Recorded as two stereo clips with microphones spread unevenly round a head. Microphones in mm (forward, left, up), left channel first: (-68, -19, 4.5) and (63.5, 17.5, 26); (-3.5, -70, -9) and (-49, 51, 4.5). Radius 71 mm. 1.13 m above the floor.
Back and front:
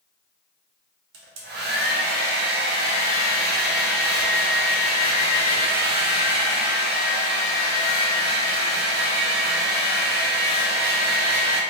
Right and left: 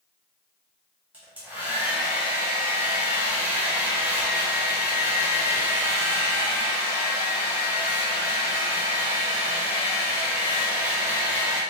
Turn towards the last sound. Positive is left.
turn(degrees=30)